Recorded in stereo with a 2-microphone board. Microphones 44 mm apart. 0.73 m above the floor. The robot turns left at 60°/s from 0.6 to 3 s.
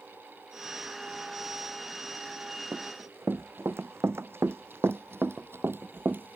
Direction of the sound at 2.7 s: 80° right.